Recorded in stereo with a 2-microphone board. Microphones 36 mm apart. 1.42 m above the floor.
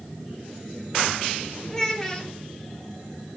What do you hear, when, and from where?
1.7 s a child speaking: 15° left (ahead or behind), 1.1 m